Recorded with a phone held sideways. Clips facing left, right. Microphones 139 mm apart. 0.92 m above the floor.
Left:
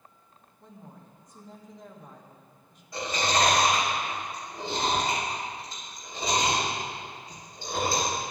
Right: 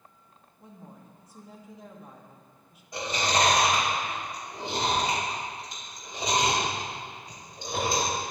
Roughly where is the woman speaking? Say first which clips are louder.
Right 1 dB; centre.